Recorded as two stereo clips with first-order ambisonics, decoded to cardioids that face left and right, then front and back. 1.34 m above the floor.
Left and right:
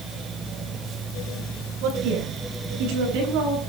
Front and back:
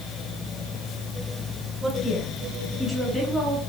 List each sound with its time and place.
1.8 s a woman speaking: 95° right, 8 m